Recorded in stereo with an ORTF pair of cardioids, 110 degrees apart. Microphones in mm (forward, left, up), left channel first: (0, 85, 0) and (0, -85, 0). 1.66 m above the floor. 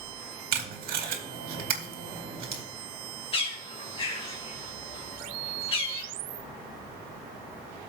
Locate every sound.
0.5 s tape being pulled: 60° right, 2.5 m
3.3 s a bird: 35° left, 2.5 m